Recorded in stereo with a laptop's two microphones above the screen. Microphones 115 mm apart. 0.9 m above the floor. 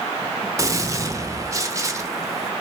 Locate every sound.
0.6 s a gunshot: 25° right (ahead or behind), 0.5 m